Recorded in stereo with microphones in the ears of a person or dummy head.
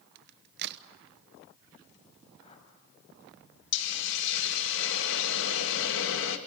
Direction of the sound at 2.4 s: 40° left (ahead or behind).